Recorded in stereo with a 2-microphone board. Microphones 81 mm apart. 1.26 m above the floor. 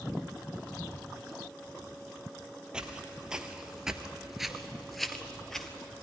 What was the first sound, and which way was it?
Footsteps, 10° right (ahead or behind).